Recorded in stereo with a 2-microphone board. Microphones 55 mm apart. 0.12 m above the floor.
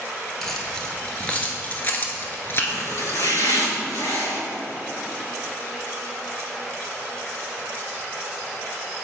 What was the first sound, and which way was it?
Keys jangling, 5° left (ahead or behind).